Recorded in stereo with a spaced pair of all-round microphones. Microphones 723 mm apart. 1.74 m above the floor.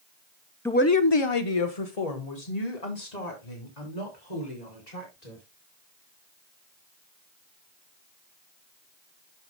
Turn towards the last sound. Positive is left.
turn(degrees=75)  # may be behind; listen again after turning